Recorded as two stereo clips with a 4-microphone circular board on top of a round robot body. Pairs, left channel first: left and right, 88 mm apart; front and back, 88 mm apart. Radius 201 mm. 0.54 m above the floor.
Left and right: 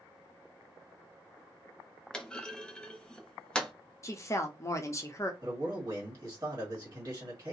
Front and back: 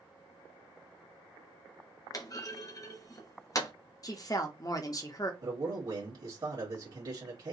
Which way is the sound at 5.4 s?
145° right.